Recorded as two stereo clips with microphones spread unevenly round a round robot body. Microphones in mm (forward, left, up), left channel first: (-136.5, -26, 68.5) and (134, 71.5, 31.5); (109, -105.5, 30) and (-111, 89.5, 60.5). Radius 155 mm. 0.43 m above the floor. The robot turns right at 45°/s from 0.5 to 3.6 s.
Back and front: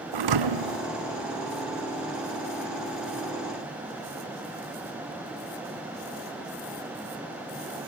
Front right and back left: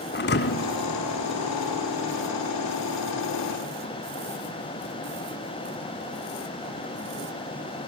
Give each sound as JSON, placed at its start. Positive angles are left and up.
{"t": 0.1, "sound": "a thud", "azimuth_deg": 20, "distance_m": 1.4}